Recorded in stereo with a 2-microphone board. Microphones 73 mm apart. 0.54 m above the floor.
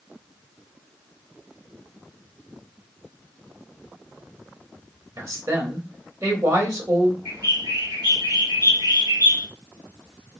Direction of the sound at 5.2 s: 45° right (ahead or behind).